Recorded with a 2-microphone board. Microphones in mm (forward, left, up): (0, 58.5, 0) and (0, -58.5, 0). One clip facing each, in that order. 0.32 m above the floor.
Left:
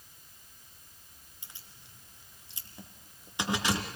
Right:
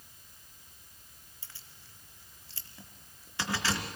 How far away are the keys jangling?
About 3 m.